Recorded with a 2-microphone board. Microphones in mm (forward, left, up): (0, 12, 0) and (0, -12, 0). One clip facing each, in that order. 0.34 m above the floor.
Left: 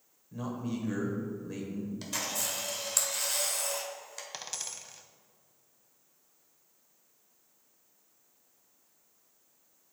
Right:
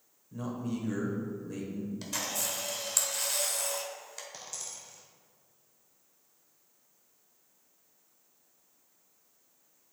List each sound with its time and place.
0.3 s a man speaking: 20° left (ahead or behind), 1.3 m
2.0 s a camera shutter: centre (ahead or behind), 1.0 m
4.3 s a dropped coin: 65° left (ahead or behind), 0.6 m